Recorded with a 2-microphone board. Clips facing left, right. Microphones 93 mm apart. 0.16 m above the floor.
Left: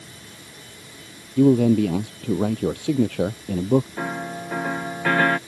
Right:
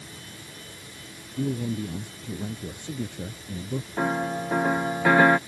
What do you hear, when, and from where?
1.4 s a man speaking: 75° left (ahead or behind)
4.0 s a piano: 10° right (ahead or behind)